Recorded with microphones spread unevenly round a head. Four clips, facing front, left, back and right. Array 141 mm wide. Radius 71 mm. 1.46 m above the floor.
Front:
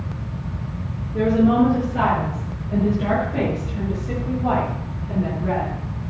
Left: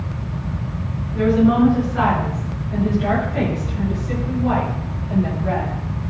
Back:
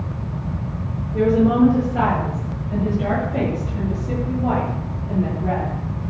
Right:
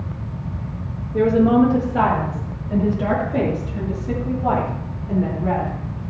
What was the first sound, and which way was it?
A woman speaking, 115° right.